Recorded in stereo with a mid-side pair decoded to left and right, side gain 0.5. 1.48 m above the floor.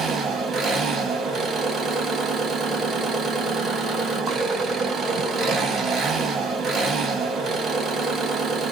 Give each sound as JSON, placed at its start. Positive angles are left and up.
{"t": 0.0, "sound": "an engine running", "azimuth_deg": -50, "distance_m": 1.4}